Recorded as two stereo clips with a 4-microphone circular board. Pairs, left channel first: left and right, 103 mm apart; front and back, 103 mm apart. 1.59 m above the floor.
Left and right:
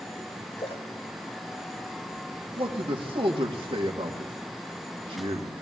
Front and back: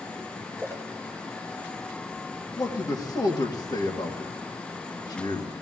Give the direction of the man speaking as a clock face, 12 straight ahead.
2 o'clock.